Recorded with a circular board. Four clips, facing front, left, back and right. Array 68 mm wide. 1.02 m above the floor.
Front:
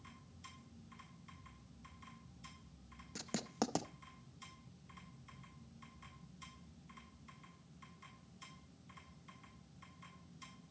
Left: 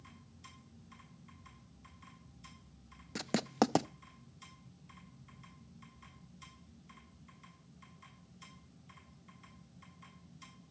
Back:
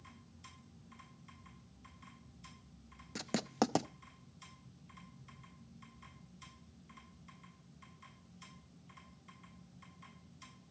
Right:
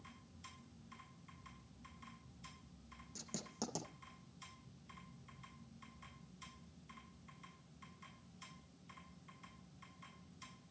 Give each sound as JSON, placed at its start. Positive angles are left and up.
{"t": 3.1, "sound": "writing", "azimuth_deg": 110, "distance_m": 0.6}